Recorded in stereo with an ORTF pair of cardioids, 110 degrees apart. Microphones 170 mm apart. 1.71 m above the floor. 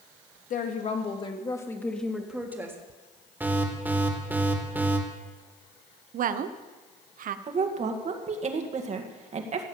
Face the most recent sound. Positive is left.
turn(degrees=-40)